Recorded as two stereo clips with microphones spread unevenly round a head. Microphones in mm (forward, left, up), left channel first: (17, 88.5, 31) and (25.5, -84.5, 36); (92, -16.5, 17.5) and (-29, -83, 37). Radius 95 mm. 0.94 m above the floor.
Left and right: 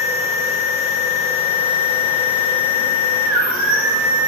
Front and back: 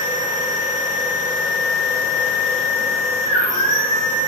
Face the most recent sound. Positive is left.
turn(degrees=-85)